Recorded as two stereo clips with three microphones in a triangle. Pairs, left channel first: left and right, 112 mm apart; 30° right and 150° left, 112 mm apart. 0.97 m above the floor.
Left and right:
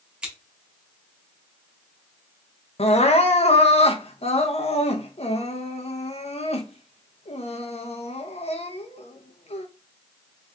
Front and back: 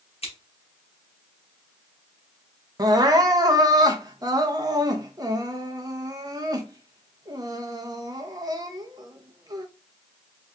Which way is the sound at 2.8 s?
100° left.